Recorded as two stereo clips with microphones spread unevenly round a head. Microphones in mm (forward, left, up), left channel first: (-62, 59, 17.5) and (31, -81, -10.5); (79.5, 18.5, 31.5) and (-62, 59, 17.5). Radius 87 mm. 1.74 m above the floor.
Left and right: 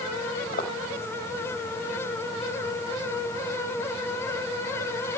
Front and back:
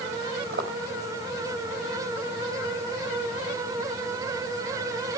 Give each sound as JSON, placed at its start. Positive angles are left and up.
{"t": 0.5, "sound": "footsteps", "azimuth_deg": 150, "distance_m": 3.5}